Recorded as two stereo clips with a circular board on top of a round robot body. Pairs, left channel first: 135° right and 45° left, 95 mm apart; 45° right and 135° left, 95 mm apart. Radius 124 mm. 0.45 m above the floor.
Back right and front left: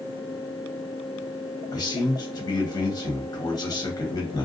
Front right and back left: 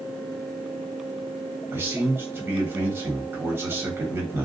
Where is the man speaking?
165° right, 1.3 m.